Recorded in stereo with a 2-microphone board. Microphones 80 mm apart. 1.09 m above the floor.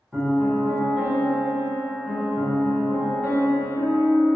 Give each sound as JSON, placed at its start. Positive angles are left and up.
{"t": 0.1, "sound": "a piano", "side_deg": -5, "distance_m": 1.1}